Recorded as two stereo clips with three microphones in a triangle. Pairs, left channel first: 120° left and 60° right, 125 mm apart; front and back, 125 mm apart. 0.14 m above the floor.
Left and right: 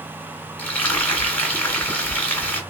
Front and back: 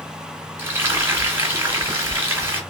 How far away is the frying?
About 1.6 m.